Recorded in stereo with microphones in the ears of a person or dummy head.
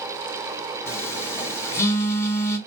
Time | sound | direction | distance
0.9 | a phone buzzing | 15° left (ahead or behind) | 1.4 m